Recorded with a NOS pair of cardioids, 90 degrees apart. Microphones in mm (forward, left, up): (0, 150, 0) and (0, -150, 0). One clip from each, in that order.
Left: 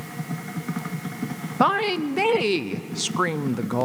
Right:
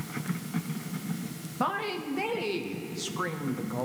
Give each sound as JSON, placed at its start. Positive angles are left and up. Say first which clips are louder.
{"t": 1.6, "sound": "a woman speaking", "louder": "left 9 dB", "azimuth_deg": 45, "distance_m": 0.7}